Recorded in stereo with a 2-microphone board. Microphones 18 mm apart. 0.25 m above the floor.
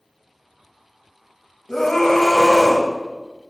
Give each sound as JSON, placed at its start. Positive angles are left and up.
{"t": 1.7, "sound": "a scream", "side_deg": 25, "distance_m": 1.0}